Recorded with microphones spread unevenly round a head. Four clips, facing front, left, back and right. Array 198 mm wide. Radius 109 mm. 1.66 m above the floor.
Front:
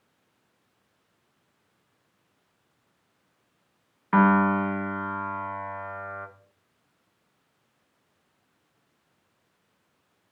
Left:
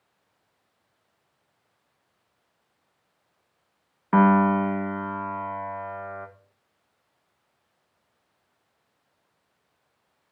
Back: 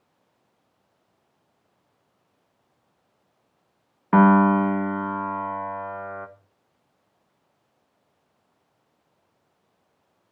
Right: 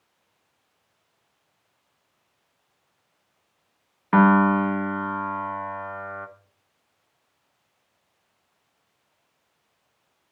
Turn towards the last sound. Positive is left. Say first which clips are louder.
# right 1 dB, back 4 dB
turn(degrees=-175)